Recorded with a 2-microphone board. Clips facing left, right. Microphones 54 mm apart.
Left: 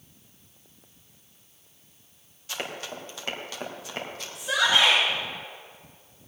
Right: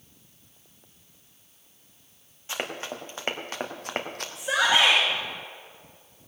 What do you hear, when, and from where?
2.5 s running footsteps: 25° right (ahead or behind), 2.5 m; by 4.2 s 60° right (ahead or behind), 2.5 m
4.3 s a shout: 35° right (ahead or behind), 3.5 m